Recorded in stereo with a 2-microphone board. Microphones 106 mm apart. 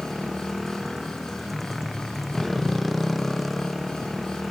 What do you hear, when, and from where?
0.0 s a motorcycle: centre (ahead or behind)